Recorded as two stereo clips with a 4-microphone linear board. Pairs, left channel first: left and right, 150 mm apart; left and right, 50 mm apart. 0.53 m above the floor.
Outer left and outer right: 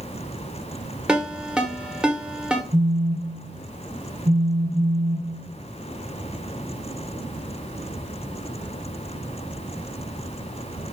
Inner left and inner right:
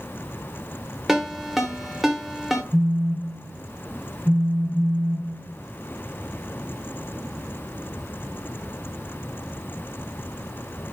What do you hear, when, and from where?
1.1 s a ringtone: 5° right (ahead or behind), 0.7 m
2.7 s a phone buzzing: 40° right (ahead or behind), 0.8 m